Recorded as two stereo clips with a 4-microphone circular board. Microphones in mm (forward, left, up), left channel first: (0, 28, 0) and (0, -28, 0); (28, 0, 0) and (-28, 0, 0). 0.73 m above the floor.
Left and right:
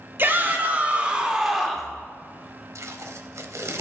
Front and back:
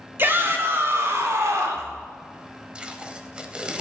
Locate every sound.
0.2 s a shout: 135° right, 2.5 m; by 1.9 s 175° left, 2 m
2.8 s tape being pulled: 110° right, 1.0 m